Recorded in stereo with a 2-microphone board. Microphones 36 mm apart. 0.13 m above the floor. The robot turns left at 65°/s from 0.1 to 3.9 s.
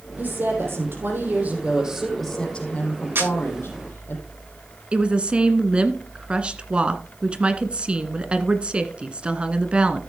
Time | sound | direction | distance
0.2 | a woman speaking | 55° right | 5 m
3.1 | a camera shutter | 70° right (ahead or behind) | 8.5 m
4.9 | a woman speaking | 30° right (ahead or behind) | 1.3 m